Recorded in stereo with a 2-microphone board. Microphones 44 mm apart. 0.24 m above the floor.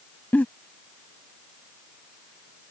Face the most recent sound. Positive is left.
turn(degrees=40)  # may be behind; listen again after turning